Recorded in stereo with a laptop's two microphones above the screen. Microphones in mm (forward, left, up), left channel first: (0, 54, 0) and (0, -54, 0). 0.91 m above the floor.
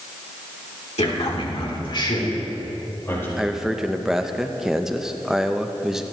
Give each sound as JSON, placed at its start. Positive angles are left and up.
{"t": 1.0, "sound": "a man speaking", "side_deg": 75, "distance_m": 2.5}
{"t": 3.4, "sound": "a man speaking", "side_deg": -5, "distance_m": 0.5}